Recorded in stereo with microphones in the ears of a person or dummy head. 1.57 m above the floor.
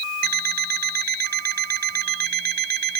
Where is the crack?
I don't hear a crack.